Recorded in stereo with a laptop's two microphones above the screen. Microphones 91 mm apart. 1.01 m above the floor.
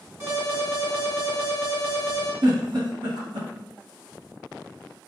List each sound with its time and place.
0.2 s an alarm: 35° right (ahead or behind), 1.7 m
2.4 s a giggle: 70° right (ahead or behind), 1.8 m